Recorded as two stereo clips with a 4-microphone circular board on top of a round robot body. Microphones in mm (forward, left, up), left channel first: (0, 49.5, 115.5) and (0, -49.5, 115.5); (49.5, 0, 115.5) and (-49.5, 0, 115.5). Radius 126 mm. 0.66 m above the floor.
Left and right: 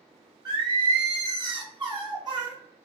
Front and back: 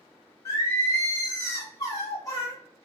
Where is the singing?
50° right, 2.0 m.